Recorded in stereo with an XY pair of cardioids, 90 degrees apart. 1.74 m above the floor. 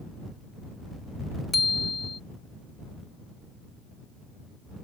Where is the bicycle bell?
30° left.